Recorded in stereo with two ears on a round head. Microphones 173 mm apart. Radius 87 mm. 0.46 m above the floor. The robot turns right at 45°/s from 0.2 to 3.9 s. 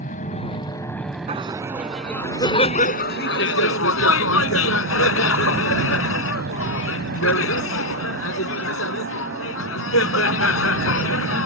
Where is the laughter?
30° right; by 11.5 s 90° left.